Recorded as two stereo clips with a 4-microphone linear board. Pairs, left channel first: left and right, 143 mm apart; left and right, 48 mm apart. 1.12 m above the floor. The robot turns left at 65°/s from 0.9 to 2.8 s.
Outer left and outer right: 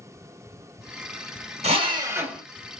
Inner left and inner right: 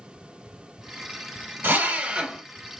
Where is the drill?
125° right, 0.9 m; by 2.4 s straight behind, 0.9 m.